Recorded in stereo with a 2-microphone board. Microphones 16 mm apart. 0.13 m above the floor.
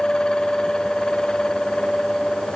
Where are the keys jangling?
No keys jangling in this recording.